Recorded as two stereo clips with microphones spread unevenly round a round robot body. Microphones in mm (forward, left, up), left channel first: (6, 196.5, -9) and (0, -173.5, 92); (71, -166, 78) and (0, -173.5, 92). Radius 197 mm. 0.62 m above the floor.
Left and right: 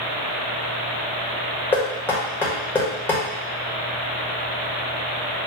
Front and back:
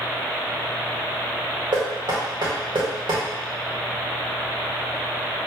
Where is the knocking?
170° left, 1.4 m.